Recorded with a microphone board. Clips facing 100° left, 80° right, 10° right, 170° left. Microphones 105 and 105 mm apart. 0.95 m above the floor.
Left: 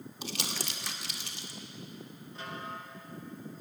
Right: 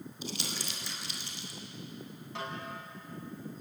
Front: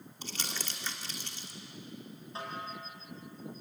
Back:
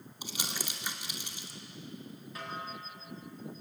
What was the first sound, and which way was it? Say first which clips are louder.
Crumpling: left 2 dB, back 1 dB; 90° left.